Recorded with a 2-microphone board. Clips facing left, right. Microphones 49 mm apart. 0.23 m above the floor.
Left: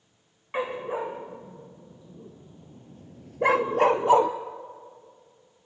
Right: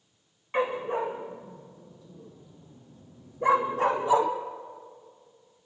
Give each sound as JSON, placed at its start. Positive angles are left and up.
{"t": 0.5, "sound": "a dog barking", "side_deg": 10, "distance_m": 4.5}